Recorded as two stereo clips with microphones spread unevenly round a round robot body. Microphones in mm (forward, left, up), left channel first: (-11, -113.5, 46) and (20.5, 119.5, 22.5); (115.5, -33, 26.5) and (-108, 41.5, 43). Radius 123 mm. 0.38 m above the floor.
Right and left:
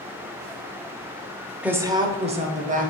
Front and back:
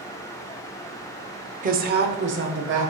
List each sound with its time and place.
1.6 s a woman speaking: 150° left, 0.8 m; by 2.9 s 130° left, 1.5 m